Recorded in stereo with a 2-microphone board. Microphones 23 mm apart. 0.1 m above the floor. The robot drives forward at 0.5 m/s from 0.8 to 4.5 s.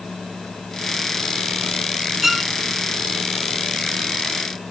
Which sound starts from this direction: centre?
A violin, at 2.2 s.